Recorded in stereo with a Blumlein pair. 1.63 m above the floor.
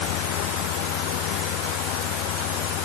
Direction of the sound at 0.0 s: 45° left.